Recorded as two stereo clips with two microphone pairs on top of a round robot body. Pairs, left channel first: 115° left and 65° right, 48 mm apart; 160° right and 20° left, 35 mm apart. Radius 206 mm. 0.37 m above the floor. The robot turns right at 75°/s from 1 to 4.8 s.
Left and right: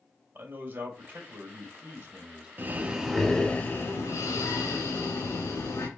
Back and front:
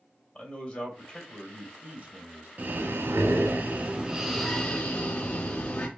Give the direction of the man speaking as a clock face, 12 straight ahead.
3 o'clock.